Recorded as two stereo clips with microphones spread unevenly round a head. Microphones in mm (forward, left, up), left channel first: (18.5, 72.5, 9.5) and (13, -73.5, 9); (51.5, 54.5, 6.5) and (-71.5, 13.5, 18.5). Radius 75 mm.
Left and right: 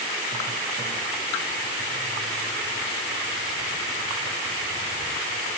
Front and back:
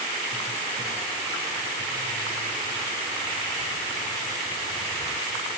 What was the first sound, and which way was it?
Only background noise.